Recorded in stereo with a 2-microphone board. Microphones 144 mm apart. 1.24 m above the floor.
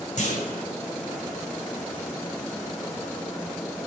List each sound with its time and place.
0.2 s a clunk: 60° left (ahead or behind), 4.5 m